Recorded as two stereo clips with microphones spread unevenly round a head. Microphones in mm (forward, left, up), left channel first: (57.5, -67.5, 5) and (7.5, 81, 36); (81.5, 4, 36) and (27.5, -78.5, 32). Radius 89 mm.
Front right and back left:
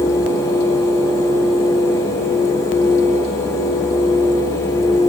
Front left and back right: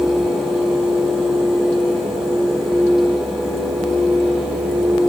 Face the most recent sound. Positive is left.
No sound to turn to.